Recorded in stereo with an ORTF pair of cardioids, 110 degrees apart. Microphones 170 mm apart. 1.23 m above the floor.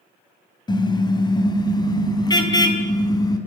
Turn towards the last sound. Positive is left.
turn(degrees=20)